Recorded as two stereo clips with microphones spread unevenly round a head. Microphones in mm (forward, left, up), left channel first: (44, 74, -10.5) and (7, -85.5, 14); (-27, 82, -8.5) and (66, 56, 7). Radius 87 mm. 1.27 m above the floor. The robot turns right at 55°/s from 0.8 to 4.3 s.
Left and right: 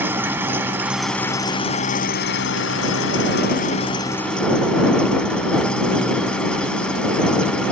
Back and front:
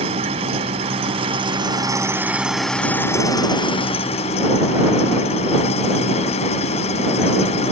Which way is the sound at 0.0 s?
30° right.